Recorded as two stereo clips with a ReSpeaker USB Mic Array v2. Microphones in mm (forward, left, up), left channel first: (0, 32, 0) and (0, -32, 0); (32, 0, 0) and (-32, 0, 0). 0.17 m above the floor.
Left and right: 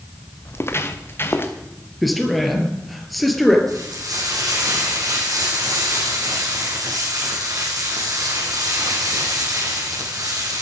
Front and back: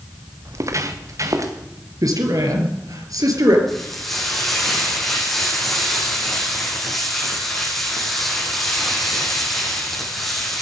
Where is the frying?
85° right, 7.5 m.